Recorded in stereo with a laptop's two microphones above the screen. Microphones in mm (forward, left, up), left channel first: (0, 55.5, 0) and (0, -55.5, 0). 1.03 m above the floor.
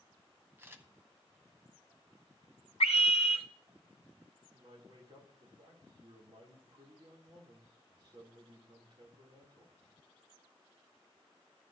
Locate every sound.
0.6 s a camera shutter: 20° right (ahead or behind), 0.7 m
2.8 s a scream: 75° left (ahead or behind), 0.5 m
4.5 s a man speaking: 50° right (ahead or behind), 2 m